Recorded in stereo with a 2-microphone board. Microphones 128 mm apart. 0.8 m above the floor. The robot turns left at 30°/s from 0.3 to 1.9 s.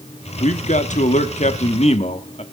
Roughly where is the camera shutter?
I don't hear a camera shutter.